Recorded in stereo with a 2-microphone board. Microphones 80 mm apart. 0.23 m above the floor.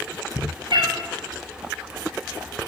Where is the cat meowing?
75° right (ahead or behind), 1.6 m.